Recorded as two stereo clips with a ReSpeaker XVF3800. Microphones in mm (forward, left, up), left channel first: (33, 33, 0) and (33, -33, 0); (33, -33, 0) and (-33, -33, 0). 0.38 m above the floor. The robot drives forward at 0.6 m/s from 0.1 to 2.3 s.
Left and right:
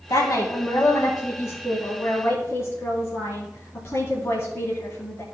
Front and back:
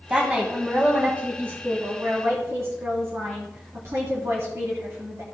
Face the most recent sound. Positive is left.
turn(degrees=135)